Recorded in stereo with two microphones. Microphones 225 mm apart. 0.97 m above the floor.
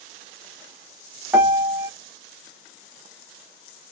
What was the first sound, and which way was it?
A piano, 10° right (ahead or behind).